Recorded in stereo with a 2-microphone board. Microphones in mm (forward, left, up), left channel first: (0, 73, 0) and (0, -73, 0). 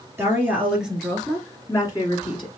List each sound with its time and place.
0.2 s a woman speaking: 15° right (ahead or behind), 2.5 m; by 2.5 s 40° left (ahead or behind), 2 m